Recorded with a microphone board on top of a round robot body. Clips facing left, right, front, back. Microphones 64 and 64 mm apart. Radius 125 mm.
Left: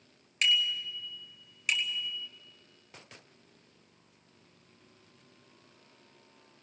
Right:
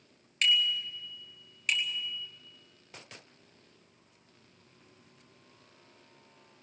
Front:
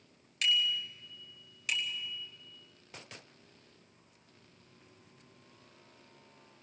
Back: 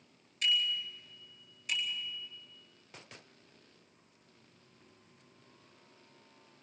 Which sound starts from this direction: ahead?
A bicycle bell, at 0.4 s.